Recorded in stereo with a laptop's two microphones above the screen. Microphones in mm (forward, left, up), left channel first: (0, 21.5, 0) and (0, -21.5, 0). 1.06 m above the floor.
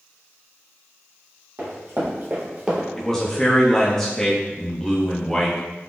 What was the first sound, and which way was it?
Running footsteps, 55° right (ahead or behind).